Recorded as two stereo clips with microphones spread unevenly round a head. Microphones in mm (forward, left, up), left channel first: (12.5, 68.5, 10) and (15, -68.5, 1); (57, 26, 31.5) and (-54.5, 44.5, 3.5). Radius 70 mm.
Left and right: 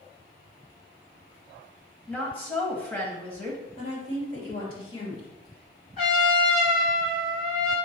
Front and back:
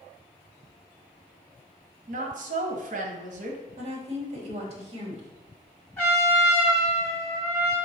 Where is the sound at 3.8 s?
140° left, 3 m.